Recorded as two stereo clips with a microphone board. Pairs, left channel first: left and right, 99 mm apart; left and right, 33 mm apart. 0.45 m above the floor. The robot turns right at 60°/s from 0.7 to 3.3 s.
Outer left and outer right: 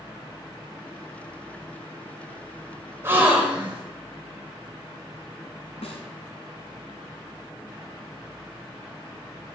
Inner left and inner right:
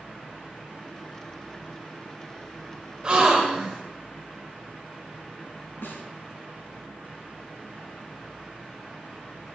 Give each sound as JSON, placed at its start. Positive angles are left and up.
{"t": 3.0, "sound": "a gasp", "side_deg": -25, "distance_m": 1.8}
{"t": 5.8, "sound": "a snare drum", "side_deg": 85, "distance_m": 1.6}